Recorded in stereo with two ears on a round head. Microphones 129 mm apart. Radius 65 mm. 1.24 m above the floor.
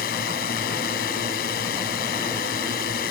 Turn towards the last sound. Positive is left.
turn(degrees=70)  # may be behind; listen again after turning